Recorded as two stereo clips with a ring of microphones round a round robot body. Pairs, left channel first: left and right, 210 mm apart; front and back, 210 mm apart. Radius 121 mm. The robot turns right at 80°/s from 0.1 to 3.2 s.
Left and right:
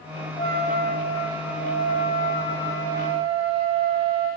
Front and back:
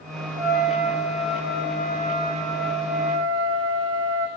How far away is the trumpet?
About 6 m.